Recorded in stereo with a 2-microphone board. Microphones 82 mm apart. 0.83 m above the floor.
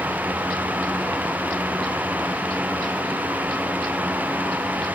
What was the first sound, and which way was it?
Only background noise.